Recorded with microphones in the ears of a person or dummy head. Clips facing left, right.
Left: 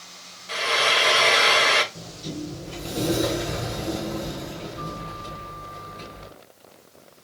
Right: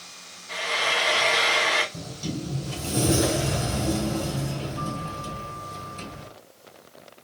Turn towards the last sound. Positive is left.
turn(degrees=-65)  # may be behind; listen again after turning